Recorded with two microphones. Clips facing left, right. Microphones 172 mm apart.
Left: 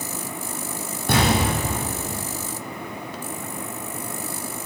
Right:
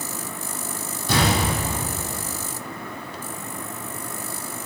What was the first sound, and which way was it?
An explosion, 55° left (ahead or behind).